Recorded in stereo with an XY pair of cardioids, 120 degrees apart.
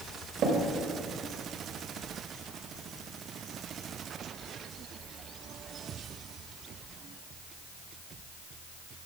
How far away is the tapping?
About 1.6 m.